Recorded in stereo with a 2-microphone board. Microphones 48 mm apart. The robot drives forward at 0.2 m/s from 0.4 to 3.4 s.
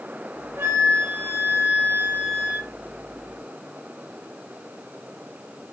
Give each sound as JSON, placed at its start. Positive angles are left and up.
{"t": 0.6, "sound": "a flute", "side_deg": -60, "distance_m": 0.8}